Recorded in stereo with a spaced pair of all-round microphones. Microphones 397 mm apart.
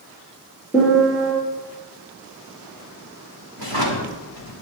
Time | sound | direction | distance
0.7 | a piano | centre (ahead or behind) | 5 m
3.6 | a drawer | 60° right (ahead or behind) | 2 m